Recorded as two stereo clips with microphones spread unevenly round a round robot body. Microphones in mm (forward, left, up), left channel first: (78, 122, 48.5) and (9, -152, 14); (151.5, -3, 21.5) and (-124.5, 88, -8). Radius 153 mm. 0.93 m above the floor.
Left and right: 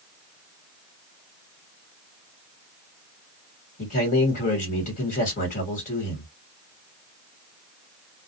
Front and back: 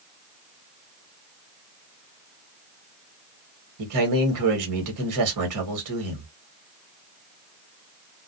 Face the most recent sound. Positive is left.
turn(degrees=145)